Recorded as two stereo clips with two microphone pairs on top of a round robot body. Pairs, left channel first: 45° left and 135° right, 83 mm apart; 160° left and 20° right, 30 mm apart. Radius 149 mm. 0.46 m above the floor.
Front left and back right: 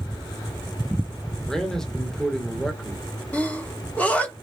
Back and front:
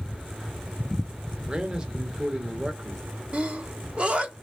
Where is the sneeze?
35° right, 1.4 m.